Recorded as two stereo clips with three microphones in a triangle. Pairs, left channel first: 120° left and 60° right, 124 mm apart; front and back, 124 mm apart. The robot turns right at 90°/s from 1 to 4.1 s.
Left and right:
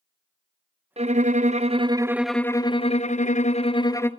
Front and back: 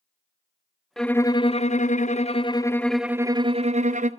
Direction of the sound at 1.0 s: 85° right.